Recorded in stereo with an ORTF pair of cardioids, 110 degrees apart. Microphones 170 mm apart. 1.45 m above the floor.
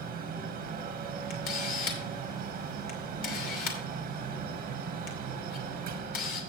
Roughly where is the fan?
Ahead right.